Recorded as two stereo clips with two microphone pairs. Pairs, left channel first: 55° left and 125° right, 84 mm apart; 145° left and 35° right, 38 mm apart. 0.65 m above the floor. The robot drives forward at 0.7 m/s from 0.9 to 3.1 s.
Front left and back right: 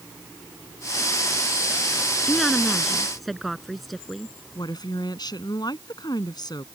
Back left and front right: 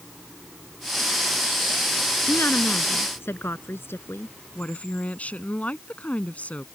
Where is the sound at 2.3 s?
145° left.